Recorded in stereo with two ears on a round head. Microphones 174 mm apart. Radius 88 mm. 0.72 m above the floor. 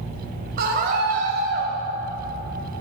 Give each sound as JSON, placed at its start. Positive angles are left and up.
{"t": 0.6, "sound": "a scream", "side_deg": -45, "distance_m": 3.5}